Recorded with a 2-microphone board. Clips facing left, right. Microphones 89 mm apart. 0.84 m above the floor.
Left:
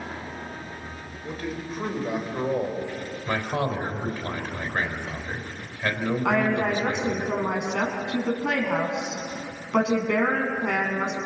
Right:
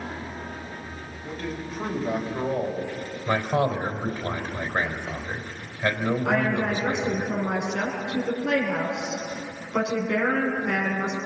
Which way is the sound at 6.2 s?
80° left.